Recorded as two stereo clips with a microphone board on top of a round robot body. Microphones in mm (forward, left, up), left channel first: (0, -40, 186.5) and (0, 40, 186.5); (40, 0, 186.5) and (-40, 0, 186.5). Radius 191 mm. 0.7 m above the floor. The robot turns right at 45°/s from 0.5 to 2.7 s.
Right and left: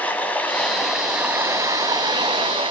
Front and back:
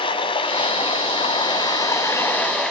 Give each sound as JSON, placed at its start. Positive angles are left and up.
{"t": 0.0, "sound": "running water", "azimuth_deg": -15, "distance_m": 1.7}